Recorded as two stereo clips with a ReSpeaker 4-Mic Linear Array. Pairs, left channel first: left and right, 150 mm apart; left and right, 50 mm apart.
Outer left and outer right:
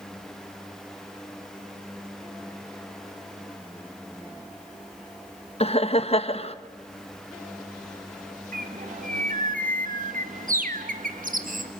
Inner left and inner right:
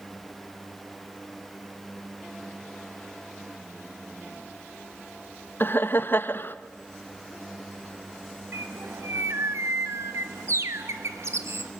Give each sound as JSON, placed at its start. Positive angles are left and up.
{"t": 5.6, "sound": "laughter", "side_deg": 40, "distance_m": 1.3}
{"t": 8.5, "sound": "a bird", "side_deg": -65, "distance_m": 1.9}